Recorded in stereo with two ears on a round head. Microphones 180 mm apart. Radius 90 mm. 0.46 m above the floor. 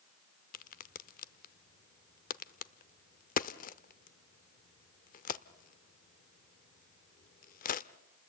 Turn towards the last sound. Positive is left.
turn(degrees=45)  # may be behind; listen again after turning